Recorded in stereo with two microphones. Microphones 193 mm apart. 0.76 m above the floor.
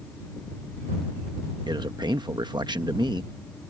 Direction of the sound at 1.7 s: 20° right (ahead or behind).